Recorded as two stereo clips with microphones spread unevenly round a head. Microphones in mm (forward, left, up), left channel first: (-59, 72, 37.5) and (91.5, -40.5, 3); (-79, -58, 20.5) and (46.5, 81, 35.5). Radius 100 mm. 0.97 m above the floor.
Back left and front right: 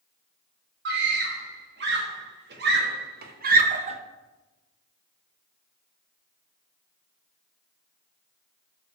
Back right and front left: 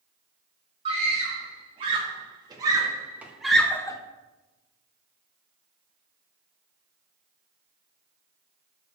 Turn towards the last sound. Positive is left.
turn(degrees=-70)